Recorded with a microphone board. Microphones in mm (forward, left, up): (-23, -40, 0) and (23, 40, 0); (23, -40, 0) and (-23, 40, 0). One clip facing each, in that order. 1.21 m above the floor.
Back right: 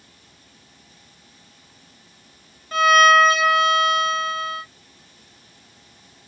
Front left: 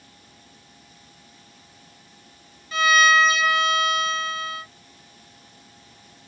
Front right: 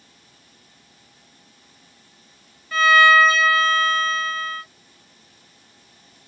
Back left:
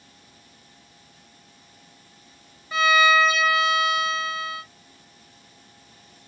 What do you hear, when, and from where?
2.7 s a violin: 165° right, 0.6 m